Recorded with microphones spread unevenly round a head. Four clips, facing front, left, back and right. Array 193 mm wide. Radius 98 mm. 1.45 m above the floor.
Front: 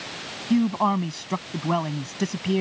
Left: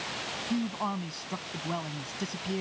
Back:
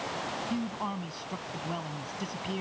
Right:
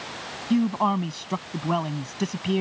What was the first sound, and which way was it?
A man speaking, 30° right.